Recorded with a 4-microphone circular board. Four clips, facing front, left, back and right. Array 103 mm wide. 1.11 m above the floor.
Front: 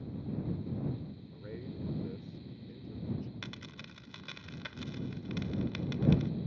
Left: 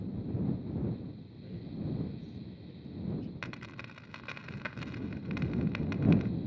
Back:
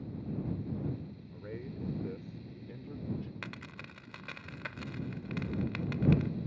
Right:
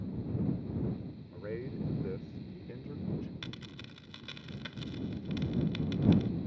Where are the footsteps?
I don't hear footsteps.